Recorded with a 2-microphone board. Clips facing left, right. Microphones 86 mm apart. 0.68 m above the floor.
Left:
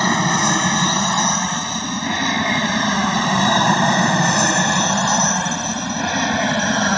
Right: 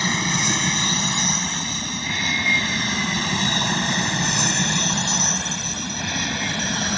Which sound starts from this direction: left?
An aircraft, at 0.0 s.